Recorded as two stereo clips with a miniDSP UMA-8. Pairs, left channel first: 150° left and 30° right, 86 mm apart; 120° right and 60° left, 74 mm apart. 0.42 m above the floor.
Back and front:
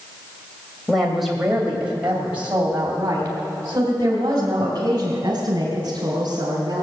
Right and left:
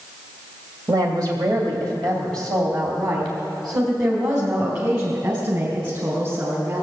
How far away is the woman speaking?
About 2.0 m.